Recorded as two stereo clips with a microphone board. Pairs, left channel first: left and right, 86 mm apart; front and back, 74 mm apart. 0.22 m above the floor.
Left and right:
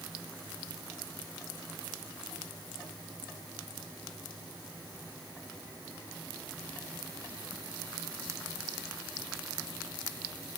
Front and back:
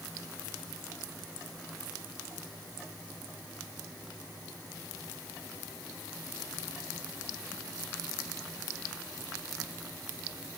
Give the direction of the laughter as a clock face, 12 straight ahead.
No laughter in this recording.